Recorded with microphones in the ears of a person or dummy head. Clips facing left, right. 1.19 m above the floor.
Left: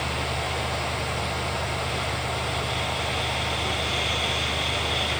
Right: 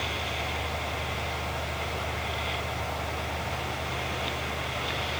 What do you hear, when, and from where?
Only background noise.